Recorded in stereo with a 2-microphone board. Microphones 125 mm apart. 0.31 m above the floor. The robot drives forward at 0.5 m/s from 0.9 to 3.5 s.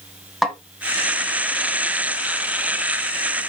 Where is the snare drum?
Centre (ahead or behind), 2.0 m.